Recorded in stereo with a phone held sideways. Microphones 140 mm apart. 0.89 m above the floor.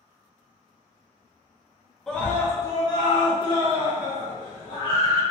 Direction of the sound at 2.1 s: 5° left (ahead or behind).